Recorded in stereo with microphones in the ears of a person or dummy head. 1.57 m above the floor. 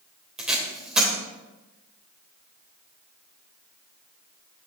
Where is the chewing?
I don't hear chewing.